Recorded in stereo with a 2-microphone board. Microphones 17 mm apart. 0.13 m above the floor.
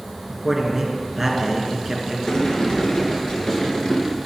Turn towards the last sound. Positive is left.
turn(degrees=35)  # may be behind; listen again after turning